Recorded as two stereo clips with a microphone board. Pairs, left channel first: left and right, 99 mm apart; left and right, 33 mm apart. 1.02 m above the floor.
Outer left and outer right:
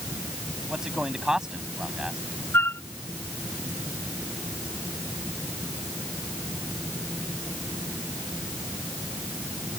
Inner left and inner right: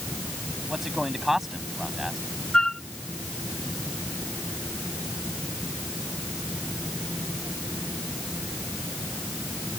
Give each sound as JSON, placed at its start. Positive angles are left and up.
{"t": 0.7, "sound": "a man speaking", "side_deg": -5}
{"t": 2.5, "sound": "a flute", "side_deg": 20}